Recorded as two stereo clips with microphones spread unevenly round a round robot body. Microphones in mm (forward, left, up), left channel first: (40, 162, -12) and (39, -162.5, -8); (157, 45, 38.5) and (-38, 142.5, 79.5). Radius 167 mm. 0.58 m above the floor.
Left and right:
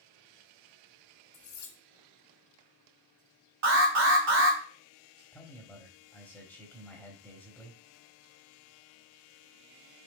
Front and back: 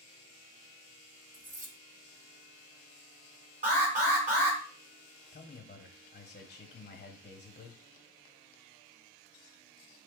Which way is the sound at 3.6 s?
135° right.